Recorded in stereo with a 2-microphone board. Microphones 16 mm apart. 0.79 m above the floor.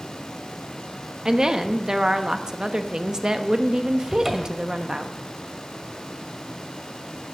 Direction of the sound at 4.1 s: 25° right (ahead or behind).